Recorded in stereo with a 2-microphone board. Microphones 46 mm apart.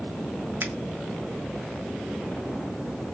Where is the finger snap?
55° right (ahead or behind), 0.5 m.